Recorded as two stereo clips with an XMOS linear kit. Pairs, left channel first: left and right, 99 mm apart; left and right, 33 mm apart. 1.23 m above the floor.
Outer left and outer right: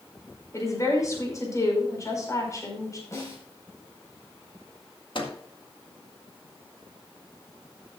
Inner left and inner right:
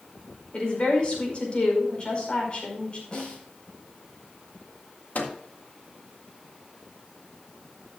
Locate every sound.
0.5 s a woman speaking: 35° left (ahead or behind), 5 m
3.1 s a snare drum: 30° left (ahead or behind), 5.5 m
5.2 s a microwave: 60° left (ahead or behind), 1.8 m